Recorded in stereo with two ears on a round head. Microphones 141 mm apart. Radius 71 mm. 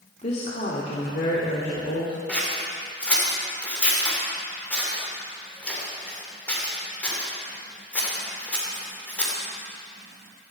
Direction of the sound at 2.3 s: 10° left (ahead or behind).